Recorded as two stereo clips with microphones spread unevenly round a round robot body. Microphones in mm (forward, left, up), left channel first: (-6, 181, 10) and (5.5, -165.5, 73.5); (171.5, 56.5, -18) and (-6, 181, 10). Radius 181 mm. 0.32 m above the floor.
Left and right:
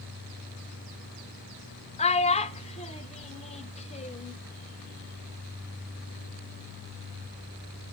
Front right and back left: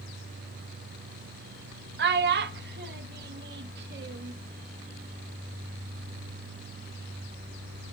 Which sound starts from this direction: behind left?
A child speaking, at 2.0 s.